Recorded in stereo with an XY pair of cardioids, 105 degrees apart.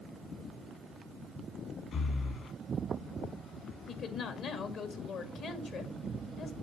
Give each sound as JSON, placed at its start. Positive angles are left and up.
{"t": 1.9, "sound": "breathing", "azimuth_deg": 60, "distance_m": 3.0}
{"t": 3.9, "sound": "a woman speaking", "azimuth_deg": 65, "distance_m": 1.8}